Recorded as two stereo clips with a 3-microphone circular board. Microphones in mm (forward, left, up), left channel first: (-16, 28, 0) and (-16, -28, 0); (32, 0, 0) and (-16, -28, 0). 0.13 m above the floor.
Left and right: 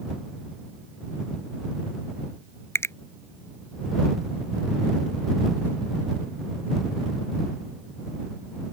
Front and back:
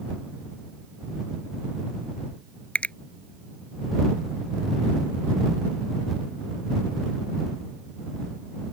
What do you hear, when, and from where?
2.8 s a finger snap: 90° left